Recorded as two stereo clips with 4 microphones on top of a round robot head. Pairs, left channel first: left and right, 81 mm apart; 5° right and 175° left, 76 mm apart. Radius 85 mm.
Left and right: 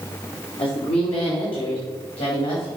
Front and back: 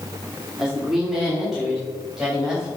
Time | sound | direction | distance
0.6 | a woman speaking | 90° left | 2.5 m